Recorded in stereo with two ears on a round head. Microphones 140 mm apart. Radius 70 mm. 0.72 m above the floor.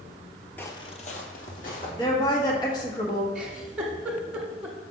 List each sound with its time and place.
0.6 s footsteps: 15° left (ahead or behind), 0.7 m; by 1.9 s 65° left (ahead or behind), 1.9 m
2.0 s a woman speaking: 25° left (ahead or behind), 1.2 m
3.4 s a giggle: 5° right (ahead or behind), 1.3 m